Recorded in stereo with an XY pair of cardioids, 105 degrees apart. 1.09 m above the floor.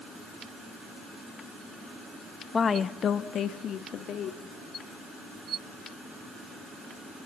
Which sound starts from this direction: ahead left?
A woman speaking, at 2.5 s.